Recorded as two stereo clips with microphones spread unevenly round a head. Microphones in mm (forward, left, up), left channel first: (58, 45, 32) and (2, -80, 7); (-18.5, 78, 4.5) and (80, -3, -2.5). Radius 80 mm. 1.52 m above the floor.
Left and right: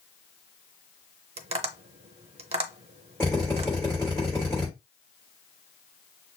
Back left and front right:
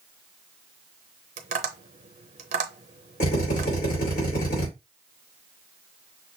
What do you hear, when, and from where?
1.4 s tapping: 70° right, 0.7 m
3.2 s a drill: 145° left, 3.5 m